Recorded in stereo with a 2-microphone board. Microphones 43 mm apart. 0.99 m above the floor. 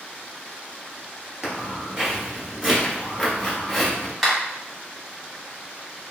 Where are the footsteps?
20° right (ahead or behind), 1.1 m; by 4.1 s 10° left (ahead or behind), 1.2 m.